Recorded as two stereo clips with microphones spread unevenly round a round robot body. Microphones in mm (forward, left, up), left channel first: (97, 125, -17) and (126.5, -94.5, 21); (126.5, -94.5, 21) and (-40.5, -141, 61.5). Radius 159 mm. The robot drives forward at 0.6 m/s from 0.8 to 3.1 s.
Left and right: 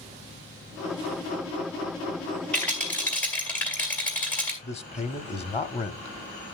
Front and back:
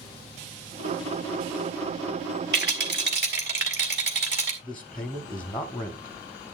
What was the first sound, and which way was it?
A rattle, 175° left.